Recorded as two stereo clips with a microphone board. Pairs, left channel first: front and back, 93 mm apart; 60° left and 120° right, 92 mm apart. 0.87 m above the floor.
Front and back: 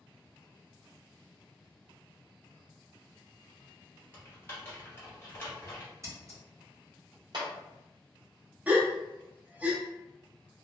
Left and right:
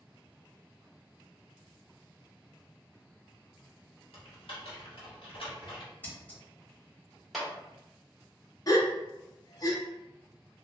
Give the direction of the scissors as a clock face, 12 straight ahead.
8 o'clock.